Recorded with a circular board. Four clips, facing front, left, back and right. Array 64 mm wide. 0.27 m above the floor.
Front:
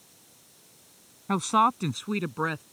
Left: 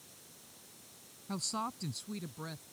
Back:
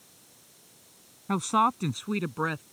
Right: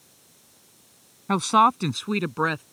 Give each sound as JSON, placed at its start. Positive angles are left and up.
{"t": 1.3, "sound": "a woman speaking", "azimuth_deg": -80}